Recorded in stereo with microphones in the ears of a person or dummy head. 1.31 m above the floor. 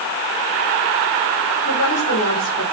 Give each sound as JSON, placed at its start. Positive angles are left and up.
{"t": 1.6, "sound": "a woman speaking", "side_deg": 90, "distance_m": 8.0}